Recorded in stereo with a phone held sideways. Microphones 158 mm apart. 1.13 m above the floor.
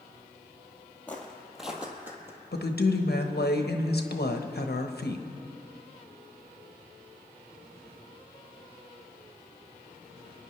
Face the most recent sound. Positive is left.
turn(degrees=70)  # may be behind; listen again after turning